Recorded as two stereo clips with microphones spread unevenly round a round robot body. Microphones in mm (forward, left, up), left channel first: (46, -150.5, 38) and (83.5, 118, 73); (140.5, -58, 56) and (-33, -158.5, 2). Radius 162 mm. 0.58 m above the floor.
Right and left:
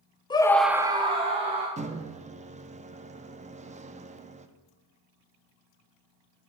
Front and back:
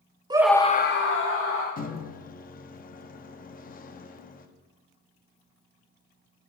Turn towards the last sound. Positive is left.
turn(degrees=35)